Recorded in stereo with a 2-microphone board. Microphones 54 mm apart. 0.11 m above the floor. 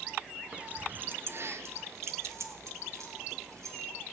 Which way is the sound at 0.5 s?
20° right (ahead or behind).